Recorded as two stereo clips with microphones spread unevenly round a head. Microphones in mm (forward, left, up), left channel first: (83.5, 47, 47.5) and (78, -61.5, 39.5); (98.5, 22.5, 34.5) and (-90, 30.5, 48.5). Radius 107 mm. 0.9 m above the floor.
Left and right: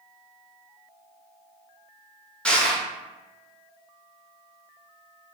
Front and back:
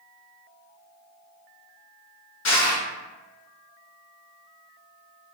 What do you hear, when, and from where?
2.5 s crushing: 5° left, 1.2 m